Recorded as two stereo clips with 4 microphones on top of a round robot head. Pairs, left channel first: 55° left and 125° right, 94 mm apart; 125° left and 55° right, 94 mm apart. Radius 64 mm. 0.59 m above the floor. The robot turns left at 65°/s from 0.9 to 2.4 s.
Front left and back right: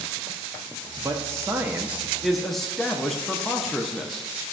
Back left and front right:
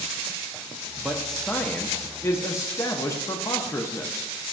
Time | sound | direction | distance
1.0 | a man speaking | 130° right | 0.7 m